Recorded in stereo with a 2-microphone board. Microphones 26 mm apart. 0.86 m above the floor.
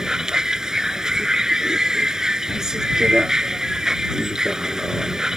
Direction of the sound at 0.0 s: 25° right (ahead or behind).